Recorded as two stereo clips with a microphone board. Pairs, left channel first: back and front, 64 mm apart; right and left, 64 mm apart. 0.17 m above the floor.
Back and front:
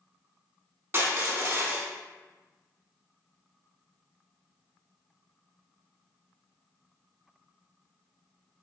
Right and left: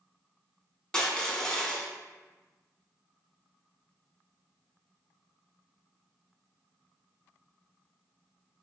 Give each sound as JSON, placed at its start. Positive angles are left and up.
{"t": 0.9, "sound": "crushing", "azimuth_deg": -20, "distance_m": 0.5}